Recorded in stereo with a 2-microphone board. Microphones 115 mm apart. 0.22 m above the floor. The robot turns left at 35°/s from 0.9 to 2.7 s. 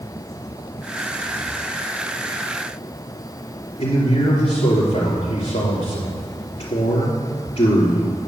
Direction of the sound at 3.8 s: 65° left (ahead or behind).